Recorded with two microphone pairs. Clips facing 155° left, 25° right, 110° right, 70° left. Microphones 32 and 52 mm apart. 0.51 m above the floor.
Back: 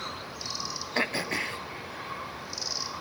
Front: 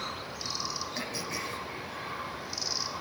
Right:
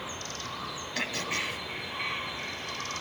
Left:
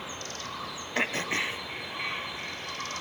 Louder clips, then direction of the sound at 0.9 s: Back 7 dB, left 4 dB; 125° left.